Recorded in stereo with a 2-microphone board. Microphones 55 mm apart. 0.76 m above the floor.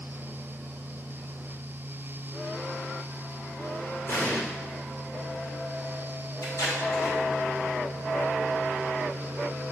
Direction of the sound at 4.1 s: 45° left (ahead or behind).